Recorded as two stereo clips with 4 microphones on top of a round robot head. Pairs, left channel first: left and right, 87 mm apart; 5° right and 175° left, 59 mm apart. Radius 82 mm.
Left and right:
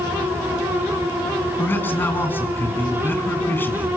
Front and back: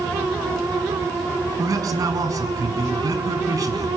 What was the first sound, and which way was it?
A man speaking, 155° left.